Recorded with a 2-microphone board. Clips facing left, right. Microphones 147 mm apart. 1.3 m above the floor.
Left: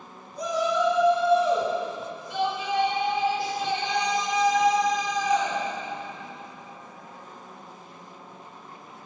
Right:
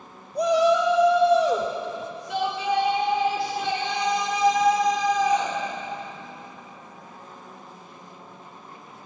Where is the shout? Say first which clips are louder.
Right 6 dB; 70° right (ahead or behind), 1.9 m; by 5.6 s 60° right (ahead or behind), 5 m.